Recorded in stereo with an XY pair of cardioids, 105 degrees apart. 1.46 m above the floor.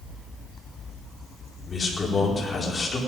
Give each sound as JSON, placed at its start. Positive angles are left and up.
{"t": 1.7, "sound": "a man speaking", "azimuth_deg": 30, "distance_m": 4.5}